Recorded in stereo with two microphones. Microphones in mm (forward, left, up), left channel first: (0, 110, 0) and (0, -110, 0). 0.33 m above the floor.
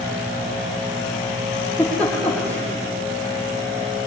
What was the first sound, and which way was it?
A giggle, 5° left (ahead or behind).